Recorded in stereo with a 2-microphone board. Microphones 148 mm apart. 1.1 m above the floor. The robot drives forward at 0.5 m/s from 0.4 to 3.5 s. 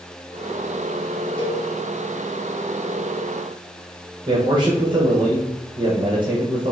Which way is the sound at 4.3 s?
35° right (ahead or behind).